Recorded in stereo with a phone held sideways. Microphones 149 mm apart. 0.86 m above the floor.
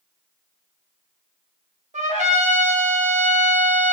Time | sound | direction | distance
1.9 | a trumpet | 55° right (ahead or behind) | 0.6 m